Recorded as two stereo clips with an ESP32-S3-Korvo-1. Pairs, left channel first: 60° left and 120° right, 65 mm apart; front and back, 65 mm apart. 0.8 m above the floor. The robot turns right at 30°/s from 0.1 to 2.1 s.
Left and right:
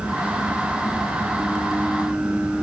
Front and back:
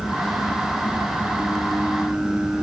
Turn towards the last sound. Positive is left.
No sound to turn to.